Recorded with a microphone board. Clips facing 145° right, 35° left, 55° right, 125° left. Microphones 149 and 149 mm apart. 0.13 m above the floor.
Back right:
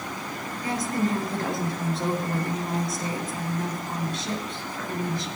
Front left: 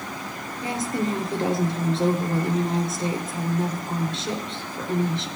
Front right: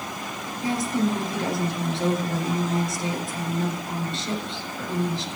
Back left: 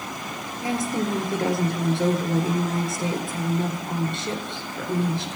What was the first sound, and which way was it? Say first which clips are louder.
A woman speaking: even, front right 1 dB; 95° left.